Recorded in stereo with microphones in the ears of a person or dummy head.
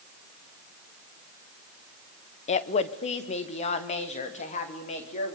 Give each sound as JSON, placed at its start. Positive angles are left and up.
{"t": 2.5, "sound": "a woman speaking", "side_deg": 35, "distance_m": 1.0}